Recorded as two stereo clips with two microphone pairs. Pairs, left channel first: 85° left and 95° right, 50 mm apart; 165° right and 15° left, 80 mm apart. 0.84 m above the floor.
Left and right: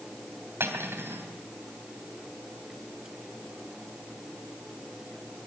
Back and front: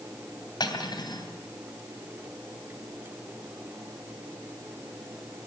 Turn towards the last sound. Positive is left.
turn(degrees=-135)